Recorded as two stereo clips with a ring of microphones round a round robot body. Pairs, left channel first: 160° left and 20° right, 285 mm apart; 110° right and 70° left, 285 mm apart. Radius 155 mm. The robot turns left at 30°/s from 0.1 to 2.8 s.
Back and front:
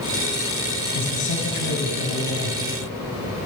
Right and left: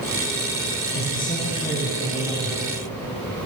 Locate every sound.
0.9 s a man speaking: 170° right, 6 m; by 2.7 s 140° left, 6 m